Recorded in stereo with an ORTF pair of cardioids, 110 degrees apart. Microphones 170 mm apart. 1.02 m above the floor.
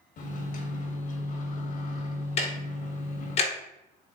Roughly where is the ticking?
Ahead left.